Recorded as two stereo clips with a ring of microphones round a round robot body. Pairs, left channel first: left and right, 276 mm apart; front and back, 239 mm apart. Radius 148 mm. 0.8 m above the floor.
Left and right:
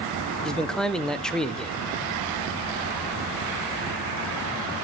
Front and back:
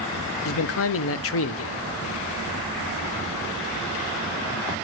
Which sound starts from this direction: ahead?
A man speaking, at 0.5 s.